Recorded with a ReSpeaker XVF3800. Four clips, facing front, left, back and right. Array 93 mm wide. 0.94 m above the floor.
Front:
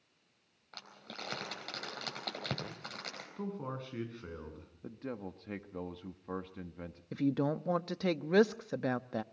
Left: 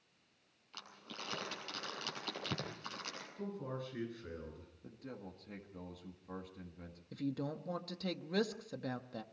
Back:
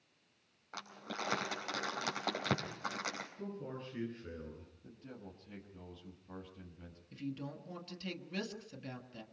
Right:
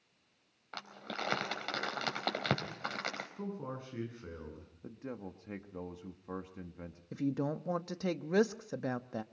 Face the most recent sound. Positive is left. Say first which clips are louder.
# right 5 dB, front 12 dB
turn(degrees=-15)